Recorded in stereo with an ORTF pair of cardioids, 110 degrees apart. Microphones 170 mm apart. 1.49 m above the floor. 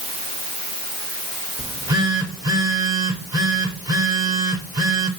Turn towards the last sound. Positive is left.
turn(degrees=-20)